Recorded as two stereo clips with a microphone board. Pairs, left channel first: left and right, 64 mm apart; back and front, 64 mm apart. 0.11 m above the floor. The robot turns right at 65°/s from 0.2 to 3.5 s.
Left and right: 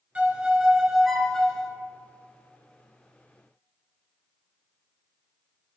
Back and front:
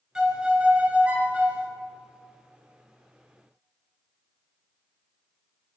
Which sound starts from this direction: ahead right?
A violin, at 0.1 s.